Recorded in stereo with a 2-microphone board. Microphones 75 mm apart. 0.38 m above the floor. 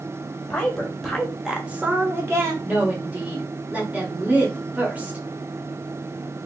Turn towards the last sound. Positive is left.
turn(degrees=-20)  # may be behind; listen again after turning